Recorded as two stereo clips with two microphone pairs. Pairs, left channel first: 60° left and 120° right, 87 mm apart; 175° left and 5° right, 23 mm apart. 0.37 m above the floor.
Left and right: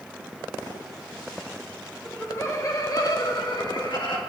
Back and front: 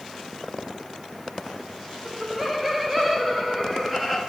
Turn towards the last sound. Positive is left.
turn(degrees=70)